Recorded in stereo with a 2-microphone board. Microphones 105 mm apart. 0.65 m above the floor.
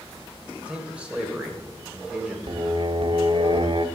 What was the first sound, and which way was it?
A man speaking, 10° right (ahead or behind).